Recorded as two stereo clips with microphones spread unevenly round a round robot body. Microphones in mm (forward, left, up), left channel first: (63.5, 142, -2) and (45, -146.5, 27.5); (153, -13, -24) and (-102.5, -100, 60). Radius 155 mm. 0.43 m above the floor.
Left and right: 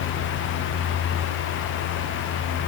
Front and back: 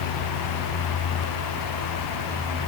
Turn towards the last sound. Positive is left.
No sound to turn to.